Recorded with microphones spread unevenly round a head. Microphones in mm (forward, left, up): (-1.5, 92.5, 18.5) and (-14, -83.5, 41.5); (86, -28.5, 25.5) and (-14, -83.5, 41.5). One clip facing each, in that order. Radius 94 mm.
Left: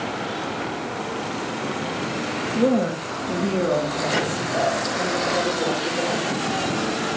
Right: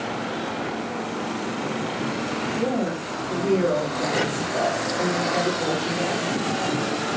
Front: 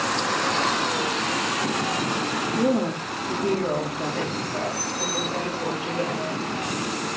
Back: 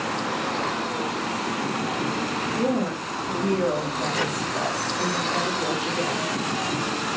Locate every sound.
2.5 s a woman speaking: 120° left, 2.5 m; by 6.3 s 140° left, 5.5 m